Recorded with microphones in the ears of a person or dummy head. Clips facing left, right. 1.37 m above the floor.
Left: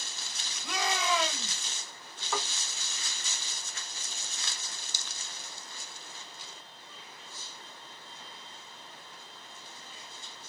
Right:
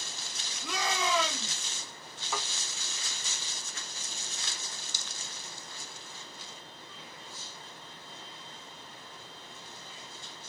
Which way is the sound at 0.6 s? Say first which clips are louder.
Even; 75° right (ahead or behind).